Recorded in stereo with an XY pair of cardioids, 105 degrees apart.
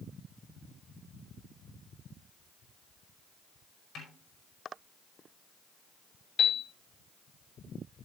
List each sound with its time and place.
4.0 s a snare drum: 70° left, 5 m
6.4 s a piano: 55° left, 4 m